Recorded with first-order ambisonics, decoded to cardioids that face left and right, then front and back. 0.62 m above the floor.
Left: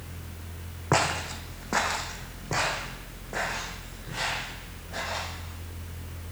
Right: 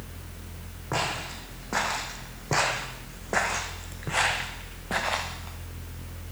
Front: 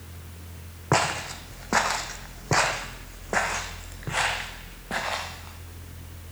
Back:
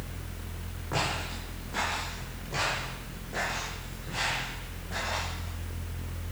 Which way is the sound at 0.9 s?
35° left.